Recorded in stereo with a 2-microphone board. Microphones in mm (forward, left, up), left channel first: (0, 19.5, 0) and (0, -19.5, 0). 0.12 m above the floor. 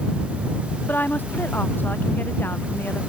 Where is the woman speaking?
65° left (ahead or behind); by 3.0 s 70° left (ahead or behind).